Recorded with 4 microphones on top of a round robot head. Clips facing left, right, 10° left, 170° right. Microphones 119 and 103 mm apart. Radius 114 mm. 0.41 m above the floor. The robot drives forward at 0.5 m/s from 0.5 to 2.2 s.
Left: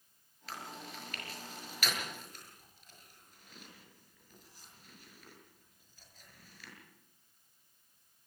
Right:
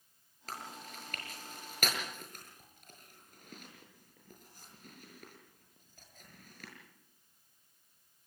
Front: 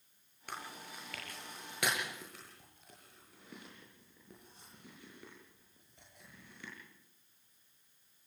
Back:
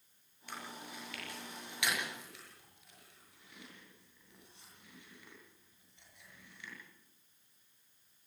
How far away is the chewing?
About 7 m.